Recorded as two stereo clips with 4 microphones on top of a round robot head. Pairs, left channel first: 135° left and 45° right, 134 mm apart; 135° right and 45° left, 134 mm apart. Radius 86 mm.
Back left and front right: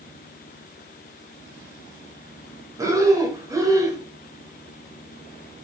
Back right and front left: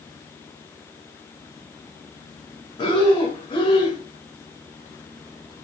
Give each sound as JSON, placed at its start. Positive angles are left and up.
{"t": 2.8, "sound": "breathing", "azimuth_deg": -100, "distance_m": 1.4}